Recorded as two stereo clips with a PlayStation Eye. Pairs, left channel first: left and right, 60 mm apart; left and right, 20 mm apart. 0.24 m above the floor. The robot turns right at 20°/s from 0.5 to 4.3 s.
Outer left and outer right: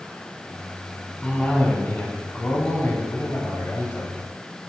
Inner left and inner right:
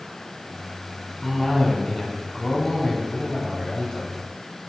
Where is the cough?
30° left, 1.4 m; by 4.1 s 90° left, 1.4 m.